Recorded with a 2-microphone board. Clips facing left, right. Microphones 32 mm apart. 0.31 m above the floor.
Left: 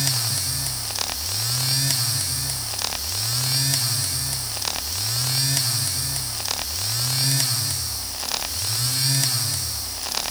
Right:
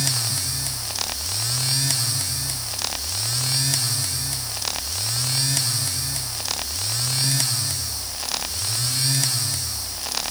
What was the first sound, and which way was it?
Only background noise.